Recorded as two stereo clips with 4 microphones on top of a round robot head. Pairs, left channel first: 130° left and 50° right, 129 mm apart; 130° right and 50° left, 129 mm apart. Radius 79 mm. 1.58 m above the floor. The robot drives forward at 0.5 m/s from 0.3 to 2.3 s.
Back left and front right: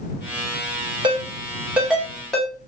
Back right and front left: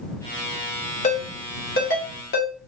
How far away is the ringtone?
About 0.7 m.